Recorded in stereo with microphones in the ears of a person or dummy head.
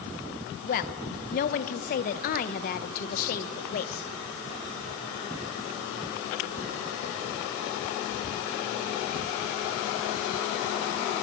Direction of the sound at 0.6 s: 55° left (ahead or behind).